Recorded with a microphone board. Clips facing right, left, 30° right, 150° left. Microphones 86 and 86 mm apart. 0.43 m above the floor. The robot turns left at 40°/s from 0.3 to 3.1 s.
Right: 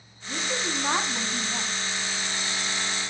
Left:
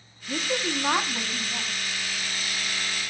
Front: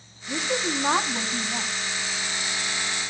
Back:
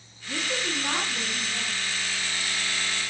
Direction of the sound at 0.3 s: 35° left.